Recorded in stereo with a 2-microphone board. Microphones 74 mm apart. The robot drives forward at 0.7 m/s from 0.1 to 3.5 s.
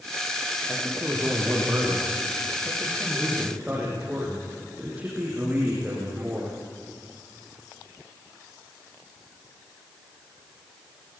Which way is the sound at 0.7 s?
20° right (ahead or behind).